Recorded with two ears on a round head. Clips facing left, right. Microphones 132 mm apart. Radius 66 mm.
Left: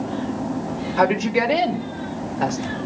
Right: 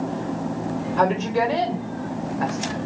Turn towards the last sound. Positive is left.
turn(degrees=35)  # may be behind; listen again after turning